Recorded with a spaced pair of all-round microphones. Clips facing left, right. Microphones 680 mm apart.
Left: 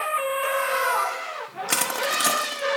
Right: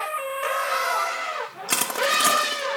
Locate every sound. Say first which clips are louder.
1.7 s crushing: right 2 dB; 5° right (ahead or behind), 0.6 m